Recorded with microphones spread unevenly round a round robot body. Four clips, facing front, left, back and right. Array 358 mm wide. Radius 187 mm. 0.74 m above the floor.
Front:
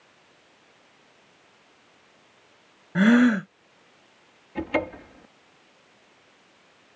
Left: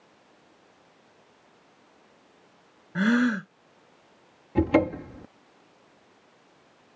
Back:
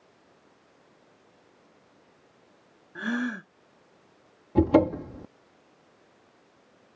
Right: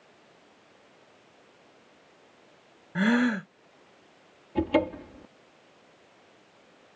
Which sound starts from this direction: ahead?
A gasp, at 3.0 s.